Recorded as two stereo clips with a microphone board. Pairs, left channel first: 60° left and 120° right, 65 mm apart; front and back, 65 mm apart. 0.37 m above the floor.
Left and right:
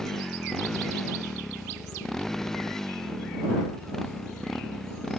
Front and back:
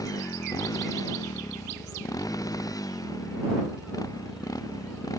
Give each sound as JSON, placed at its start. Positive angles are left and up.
{"t": 0.0, "sound": "a motorcycle", "azimuth_deg": -25}